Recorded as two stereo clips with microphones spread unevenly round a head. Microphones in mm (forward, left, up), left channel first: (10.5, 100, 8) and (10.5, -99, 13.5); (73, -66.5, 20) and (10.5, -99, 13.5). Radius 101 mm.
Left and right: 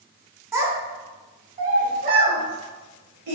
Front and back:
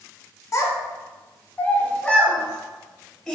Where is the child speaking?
15° right, 1.0 m; by 3.4 s 55° right, 2 m.